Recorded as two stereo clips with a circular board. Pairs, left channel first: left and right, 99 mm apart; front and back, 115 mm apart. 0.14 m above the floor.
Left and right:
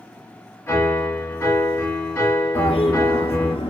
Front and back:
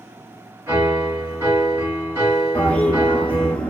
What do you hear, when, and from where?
0.7 s a piano: 130° left, 1.7 m
2.5 s a toilet flushing: 80° left, 0.7 m